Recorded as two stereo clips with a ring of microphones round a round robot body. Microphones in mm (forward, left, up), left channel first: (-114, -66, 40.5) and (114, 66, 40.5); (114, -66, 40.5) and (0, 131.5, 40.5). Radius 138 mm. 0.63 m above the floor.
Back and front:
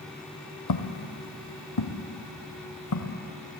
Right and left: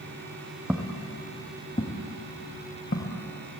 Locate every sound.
0.7 s footsteps: 155° right, 1.8 m; by 3.2 s 115° right, 3.5 m